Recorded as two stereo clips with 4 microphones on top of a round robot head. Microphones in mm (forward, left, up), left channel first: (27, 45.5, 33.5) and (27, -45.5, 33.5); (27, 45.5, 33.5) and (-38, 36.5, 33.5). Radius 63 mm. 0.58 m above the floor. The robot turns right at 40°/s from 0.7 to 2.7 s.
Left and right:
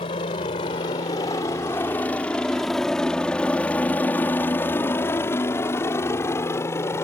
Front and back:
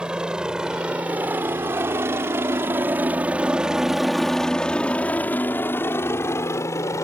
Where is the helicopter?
110° left; by 7.0 s 35° left.